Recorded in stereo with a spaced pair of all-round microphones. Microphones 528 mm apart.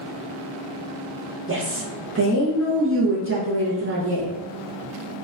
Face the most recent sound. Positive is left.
turn(degrees=-25)  # may be behind; listen again after turning